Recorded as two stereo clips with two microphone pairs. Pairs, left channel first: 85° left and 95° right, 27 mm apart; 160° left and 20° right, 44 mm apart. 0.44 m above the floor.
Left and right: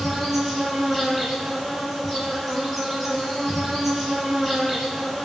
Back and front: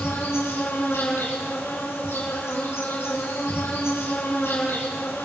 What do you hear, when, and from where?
0.0 s an insect: straight behind, 6 m